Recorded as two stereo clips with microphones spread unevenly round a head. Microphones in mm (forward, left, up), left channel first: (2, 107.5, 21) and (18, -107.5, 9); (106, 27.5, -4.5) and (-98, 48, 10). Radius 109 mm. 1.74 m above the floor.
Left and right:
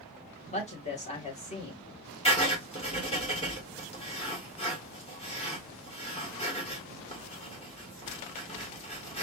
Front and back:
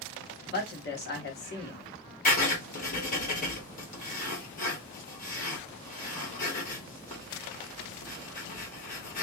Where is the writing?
40° left, 2 m.